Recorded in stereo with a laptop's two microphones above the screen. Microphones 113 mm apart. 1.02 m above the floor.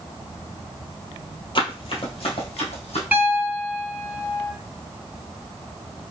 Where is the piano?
15° right (ahead or behind), 1.5 m.